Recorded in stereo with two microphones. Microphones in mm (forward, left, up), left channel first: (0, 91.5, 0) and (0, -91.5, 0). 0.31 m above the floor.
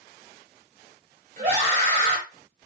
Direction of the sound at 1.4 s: 45° right (ahead or behind).